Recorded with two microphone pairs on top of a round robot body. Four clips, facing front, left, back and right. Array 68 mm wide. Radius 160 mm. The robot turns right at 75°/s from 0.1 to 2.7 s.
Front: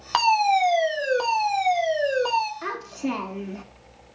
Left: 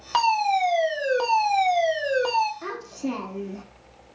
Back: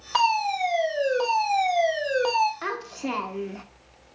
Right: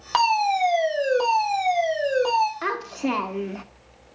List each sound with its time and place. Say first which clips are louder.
0.1 s a fire alarm: right 1 dB, front 3 dB; 25° right, 2.5 m; by 2.5 s 150° left, 2.5 m
2.6 s a child speaking: right 5 dB, front 1 dB; 105° right, 0.8 m; by 3.6 s 95° right, 0.8 m